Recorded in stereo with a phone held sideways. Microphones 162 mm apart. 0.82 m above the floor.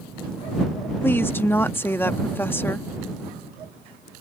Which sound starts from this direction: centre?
A woman speaking, at 1.0 s.